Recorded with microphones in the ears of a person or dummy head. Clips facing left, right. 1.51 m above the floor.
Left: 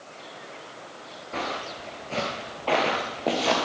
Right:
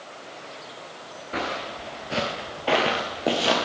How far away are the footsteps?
About 1.5 m.